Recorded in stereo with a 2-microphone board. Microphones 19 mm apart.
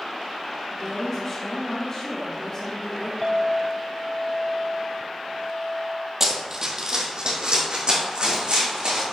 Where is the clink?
10° left (ahead or behind), 0.9 m.